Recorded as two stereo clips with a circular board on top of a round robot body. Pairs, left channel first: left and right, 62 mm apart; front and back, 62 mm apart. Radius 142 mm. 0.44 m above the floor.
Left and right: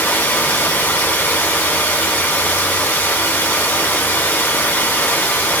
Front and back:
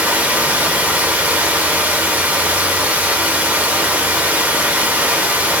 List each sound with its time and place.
0.0 s running water: 130° left, 0.9 m